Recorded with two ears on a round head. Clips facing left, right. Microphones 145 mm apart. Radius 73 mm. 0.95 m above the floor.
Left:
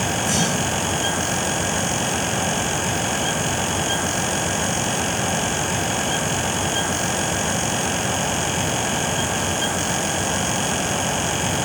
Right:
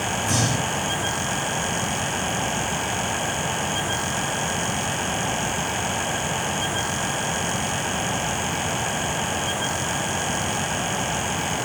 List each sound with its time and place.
0.2 s breathing: 35° left (ahead or behind), 7 m